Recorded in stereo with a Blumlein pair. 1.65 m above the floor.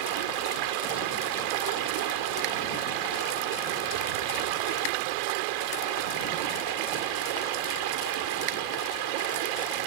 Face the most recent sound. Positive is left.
turn(degrees=-45)